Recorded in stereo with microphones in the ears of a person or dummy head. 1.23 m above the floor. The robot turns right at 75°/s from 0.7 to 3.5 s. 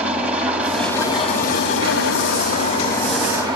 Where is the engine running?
Straight ahead, 4.5 m; by 3.6 s 150° right, 4.5 m.